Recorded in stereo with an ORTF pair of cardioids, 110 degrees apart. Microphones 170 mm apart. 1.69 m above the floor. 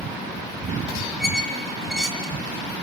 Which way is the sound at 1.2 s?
Straight ahead.